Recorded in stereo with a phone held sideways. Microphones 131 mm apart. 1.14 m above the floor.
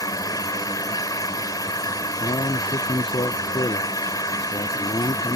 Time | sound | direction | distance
0.0 | an engine running | 30° left (ahead or behind) | ?
2.1 | a man speaking | 40° left (ahead or behind) | ?